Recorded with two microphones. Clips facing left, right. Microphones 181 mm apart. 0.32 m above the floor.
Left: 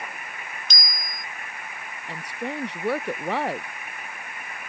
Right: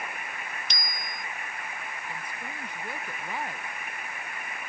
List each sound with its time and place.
0.7 s a bicycle bell: 70° right (ahead or behind)
2.1 s a woman speaking: 75° left (ahead or behind)